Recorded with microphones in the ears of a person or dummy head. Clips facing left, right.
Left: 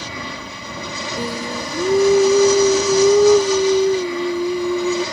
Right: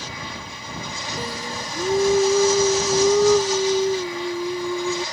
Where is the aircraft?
65° left (ahead or behind).